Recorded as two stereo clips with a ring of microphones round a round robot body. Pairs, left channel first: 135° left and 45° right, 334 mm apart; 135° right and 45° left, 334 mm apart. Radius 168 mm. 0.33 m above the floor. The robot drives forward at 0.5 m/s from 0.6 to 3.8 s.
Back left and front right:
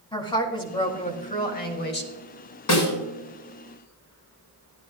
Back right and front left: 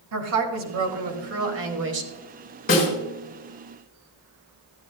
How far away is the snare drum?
About 4 m.